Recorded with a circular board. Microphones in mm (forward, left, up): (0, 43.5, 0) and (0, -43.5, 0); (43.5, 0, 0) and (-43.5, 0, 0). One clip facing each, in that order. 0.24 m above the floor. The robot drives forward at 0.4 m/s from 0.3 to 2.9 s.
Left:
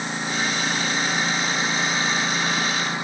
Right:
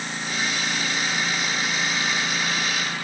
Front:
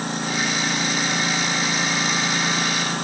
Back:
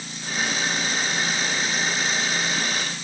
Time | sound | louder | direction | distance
0.0 | a lawn mower | left 3 dB, front 5 dB | 20° left | ?